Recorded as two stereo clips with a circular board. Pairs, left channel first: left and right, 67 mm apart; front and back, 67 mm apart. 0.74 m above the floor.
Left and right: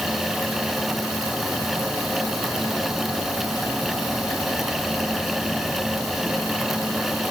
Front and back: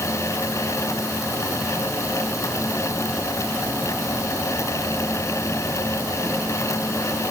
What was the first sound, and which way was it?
Only background noise.